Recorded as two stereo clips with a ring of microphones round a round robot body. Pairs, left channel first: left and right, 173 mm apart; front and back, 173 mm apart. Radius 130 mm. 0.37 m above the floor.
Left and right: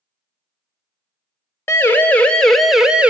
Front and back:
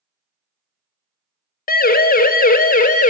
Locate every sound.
1.7 s a siren: 15° left, 2 m; by 3.1 s 10° right, 1.8 m